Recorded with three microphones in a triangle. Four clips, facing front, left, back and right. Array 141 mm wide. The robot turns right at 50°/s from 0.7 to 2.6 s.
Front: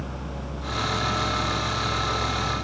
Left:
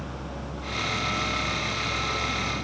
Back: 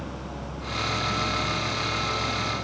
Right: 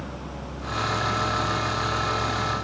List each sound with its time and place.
Only background noise.